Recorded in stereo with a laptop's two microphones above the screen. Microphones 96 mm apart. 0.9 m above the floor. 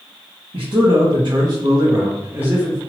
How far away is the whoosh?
I don't hear a whoosh.